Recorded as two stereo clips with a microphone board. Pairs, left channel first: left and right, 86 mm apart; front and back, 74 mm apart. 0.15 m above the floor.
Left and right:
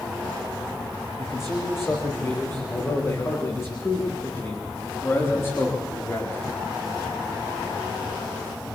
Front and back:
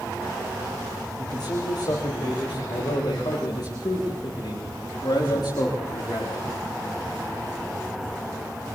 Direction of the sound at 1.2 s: 30° left.